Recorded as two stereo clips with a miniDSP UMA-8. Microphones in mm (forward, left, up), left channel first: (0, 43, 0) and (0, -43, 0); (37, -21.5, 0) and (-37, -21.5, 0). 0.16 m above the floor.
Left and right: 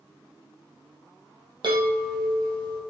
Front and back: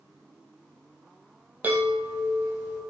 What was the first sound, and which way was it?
A chime, 115° right.